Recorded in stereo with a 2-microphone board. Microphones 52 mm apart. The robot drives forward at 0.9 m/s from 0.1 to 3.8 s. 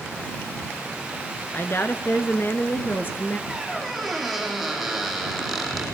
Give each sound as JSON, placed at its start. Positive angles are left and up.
{"t": 1.5, "sound": "a woman speaking", "side_deg": 45, "distance_m": 1.6}
{"t": 3.5, "sound": "a squeak", "side_deg": 0, "distance_m": 5.0}